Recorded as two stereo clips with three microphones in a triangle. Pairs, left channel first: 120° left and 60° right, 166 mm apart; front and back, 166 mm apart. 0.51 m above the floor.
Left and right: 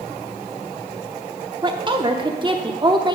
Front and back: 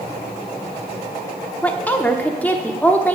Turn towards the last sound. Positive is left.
turn(degrees=-70)